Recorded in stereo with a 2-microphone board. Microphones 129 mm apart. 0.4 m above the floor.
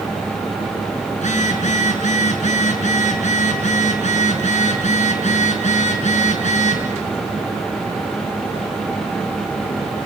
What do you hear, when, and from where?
1.1 s a phone buzzing: 60° left (ahead or behind), 6 m